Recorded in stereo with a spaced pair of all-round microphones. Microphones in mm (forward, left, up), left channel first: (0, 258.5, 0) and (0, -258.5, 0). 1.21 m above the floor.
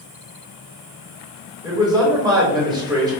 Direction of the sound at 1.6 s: 10° right (ahead or behind).